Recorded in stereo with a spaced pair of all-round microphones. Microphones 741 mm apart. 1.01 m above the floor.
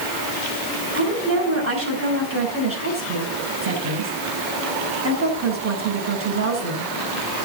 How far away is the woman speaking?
About 7 m.